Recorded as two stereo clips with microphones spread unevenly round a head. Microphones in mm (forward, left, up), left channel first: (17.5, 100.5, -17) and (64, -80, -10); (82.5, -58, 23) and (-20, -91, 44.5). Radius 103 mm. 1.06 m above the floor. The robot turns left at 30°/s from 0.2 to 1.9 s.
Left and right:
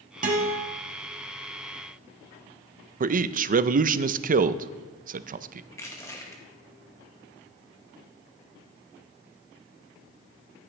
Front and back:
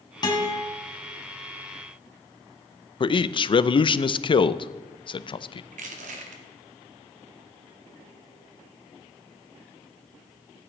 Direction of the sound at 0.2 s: 35° right.